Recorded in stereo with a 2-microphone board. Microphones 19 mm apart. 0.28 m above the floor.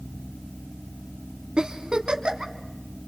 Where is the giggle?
60° right (ahead or behind), 1.7 m.